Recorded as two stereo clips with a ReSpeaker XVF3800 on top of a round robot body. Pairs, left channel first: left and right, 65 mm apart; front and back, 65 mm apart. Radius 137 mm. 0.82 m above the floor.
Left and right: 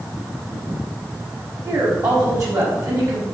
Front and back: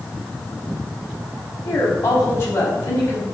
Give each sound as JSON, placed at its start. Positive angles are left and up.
{"t": 1.6, "sound": "a woman speaking", "azimuth_deg": -55, "distance_m": 5.5}